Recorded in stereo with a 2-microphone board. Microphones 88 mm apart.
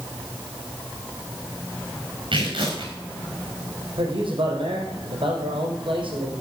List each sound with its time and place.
2.3 s tearing paper: 65° right (ahead or behind), 5.5 m
4.0 s a man speaking: 75° right (ahead or behind), 5 m